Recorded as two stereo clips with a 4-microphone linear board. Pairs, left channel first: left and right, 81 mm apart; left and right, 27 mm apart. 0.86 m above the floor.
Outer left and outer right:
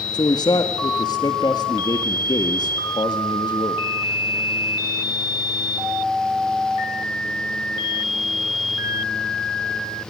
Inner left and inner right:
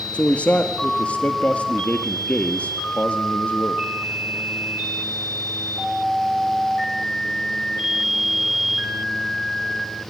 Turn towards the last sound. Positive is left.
turn(degrees=60)  # may be behind; listen again after turning